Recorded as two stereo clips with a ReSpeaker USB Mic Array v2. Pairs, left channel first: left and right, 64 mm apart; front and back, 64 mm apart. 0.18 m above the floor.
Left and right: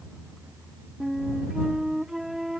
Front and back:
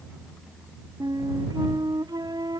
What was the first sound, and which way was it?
A flute, 175° right.